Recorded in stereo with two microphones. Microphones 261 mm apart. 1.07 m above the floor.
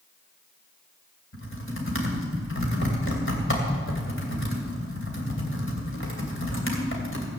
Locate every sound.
1.3 s typing on a keyboard: 50° left (ahead or behind), 3 m